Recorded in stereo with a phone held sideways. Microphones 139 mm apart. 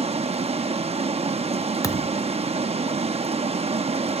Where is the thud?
25° left (ahead or behind), 0.6 m.